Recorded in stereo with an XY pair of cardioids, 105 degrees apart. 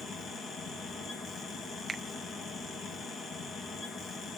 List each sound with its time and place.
0.0 s a fan: 55° left, 4.5 m
1.9 s a finger snap: 20° right, 1.0 m